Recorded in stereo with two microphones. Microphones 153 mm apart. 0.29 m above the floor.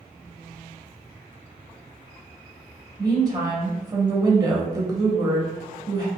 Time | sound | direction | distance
3.0 | a woman speaking | 25° right (ahead or behind) | 0.9 m